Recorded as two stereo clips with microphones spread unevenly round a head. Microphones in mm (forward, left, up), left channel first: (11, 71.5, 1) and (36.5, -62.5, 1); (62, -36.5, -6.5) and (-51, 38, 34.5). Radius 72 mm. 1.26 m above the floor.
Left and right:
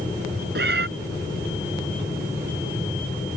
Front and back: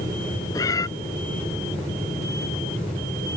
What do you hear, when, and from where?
0.6 s a cat meowing: 100° right